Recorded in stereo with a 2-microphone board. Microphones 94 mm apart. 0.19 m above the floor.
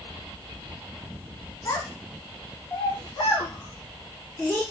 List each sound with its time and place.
1.6 s a child speaking: 30° left (ahead or behind), 1.3 m